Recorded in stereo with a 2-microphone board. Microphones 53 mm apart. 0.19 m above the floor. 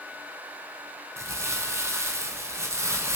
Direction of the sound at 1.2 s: 60° right (ahead or behind).